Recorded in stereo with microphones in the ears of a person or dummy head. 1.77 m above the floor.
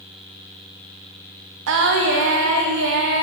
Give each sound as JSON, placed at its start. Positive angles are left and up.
{"t": 1.7, "sound": "singing", "side_deg": -70, "distance_m": 0.8}